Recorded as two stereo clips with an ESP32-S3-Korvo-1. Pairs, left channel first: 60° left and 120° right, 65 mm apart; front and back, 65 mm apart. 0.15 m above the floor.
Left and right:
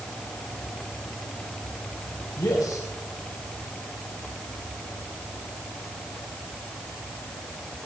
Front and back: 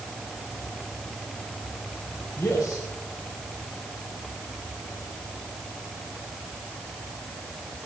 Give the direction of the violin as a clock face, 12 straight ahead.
No violin in this recording.